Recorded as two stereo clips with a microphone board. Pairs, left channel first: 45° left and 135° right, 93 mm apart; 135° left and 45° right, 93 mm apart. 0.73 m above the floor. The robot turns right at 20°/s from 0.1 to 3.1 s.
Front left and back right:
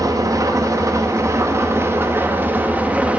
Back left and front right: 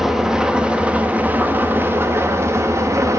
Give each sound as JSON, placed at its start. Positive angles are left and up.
{"t": 0.0, "sound": "an engine running", "azimuth_deg": -125, "distance_m": 0.7}